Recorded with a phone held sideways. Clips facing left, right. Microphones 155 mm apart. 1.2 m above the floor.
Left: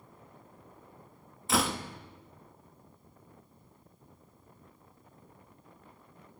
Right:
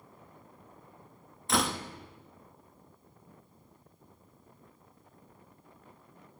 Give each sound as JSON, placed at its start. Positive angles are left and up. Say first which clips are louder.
{"t": 1.5, "sound": "a door slam", "louder": "even", "side_deg": 0, "distance_m": 1.2}